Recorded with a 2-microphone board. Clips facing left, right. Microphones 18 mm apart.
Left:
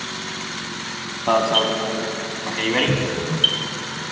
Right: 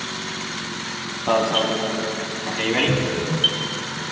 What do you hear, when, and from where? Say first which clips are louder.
1.3 s an alarm: left 2 dB; 15° left (ahead or behind), 1.9 m
2.9 s a cupboard door: even; 80° left, 1.5 m